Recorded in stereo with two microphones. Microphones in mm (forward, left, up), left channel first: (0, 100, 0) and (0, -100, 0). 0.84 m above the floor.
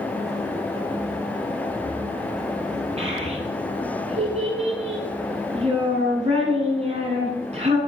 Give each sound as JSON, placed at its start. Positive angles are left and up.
{"t": 3.0, "sound": "a child speaking", "side_deg": -30, "distance_m": 8.0}